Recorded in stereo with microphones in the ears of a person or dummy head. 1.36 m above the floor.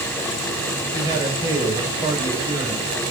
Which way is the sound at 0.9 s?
15° right (ahead or behind).